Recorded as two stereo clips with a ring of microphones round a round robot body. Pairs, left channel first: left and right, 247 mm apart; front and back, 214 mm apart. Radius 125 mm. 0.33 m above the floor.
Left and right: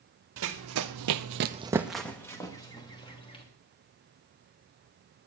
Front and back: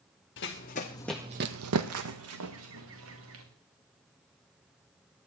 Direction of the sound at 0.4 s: 50° right.